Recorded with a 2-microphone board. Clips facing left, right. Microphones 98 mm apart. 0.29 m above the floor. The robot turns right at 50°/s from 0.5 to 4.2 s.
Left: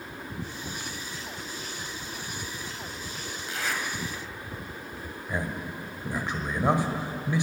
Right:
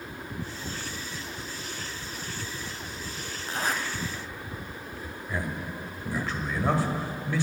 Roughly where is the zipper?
Right.